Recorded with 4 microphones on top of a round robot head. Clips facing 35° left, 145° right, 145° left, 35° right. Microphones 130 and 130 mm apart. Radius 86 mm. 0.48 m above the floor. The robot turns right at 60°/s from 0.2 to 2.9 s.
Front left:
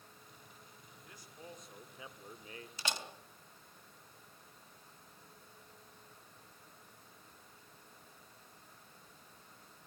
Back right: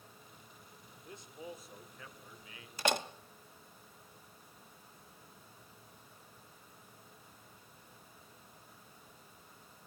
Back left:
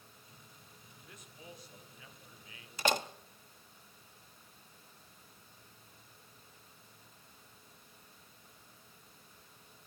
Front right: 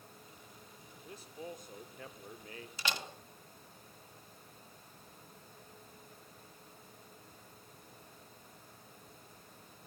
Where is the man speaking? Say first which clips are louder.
Back right 6 dB, front right 8 dB; 90° right, 1.8 m; by 2.7 s 5° left, 1.8 m.